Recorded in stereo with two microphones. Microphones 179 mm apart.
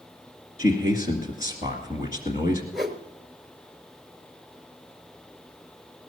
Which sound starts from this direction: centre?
A whoosh, at 2.7 s.